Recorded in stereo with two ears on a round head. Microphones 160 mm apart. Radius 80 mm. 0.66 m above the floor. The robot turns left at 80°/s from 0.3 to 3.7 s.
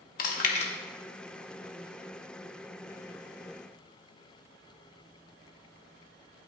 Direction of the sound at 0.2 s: 50° left (ahead or behind).